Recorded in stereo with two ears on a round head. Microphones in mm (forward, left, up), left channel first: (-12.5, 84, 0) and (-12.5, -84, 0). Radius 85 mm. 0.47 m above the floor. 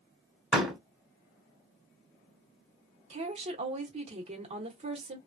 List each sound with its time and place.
0.5 s a door slam: 5° right (ahead or behind), 1.4 m
3.1 s a woman speaking: 35° right (ahead or behind), 1.0 m